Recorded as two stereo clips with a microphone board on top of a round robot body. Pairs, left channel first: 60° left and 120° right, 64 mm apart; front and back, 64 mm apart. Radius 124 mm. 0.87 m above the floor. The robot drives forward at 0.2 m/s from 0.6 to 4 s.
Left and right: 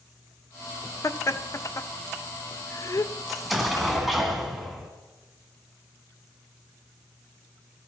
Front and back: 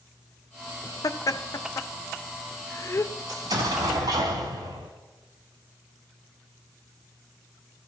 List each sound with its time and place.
1.0 s laughter: 20° left, 0.9 m; by 3.1 s 40° left, 0.6 m
3.3 s an explosion: 155° left, 2 m